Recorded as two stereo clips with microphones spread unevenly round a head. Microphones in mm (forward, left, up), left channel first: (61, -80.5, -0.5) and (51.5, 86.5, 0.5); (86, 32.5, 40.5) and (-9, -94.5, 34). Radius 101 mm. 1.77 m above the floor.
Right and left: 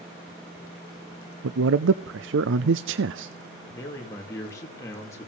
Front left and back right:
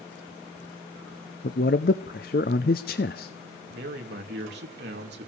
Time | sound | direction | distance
1.4 | a man speaking | 100° left | 0.6 m
3.7 | a man speaking | 165° right | 2.5 m